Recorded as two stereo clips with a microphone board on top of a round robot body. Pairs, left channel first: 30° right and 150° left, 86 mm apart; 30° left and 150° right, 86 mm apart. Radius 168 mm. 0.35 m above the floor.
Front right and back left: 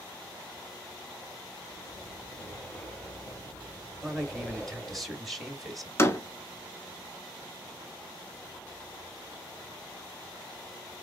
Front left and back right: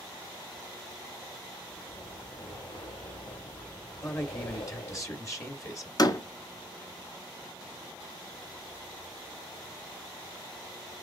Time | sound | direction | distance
1.7 | breathing | 40° left | 3.5 m
4.0 | a man speaking | 60° left | 1.7 m
6.0 | a door slam | 20° left | 1.3 m